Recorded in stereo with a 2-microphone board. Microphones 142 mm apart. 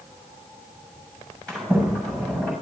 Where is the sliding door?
5° left (ahead or behind), 8 m.